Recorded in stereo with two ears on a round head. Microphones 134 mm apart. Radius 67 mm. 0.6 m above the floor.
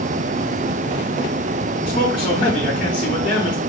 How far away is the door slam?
I don't hear a door slam.